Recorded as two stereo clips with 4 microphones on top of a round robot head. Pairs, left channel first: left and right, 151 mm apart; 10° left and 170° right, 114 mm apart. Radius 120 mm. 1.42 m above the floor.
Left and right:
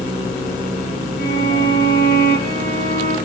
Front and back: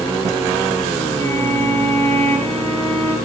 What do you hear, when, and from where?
1.2 s a violin: 75° left, 7.5 m